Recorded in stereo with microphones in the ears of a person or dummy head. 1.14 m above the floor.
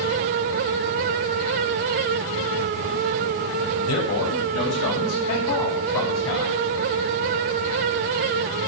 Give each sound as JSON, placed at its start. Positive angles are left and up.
{"t": 3.9, "sound": "a man speaking", "side_deg": 80, "distance_m": 6.0}